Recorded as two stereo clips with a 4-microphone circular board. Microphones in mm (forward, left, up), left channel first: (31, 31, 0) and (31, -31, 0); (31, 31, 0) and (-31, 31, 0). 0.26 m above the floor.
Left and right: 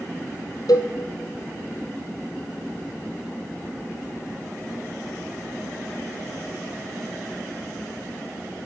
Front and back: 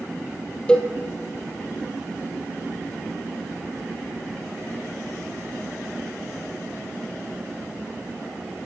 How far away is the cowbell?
About 3 m.